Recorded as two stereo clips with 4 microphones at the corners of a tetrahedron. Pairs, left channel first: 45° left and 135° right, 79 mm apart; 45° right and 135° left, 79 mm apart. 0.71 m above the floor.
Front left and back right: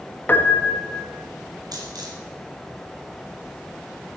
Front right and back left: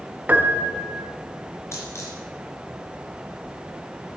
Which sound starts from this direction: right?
A dropped coin, at 1.7 s.